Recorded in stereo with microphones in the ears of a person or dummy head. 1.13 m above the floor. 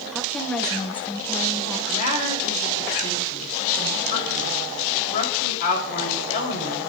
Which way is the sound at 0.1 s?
Centre (ahead or behind).